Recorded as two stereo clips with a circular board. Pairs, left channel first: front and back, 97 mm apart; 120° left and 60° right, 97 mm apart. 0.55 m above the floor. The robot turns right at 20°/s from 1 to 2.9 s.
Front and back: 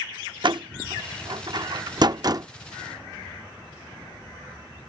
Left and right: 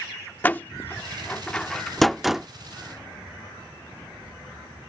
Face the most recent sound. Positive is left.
turn(degrees=-135)